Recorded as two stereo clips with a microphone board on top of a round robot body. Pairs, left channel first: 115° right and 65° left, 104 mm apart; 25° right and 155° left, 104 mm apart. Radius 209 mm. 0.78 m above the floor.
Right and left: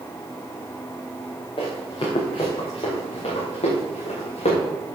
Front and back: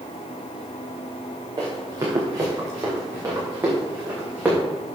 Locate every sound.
1.6 s running footsteps: 150° right, 6 m; by 4.6 s 130° right, 5.5 m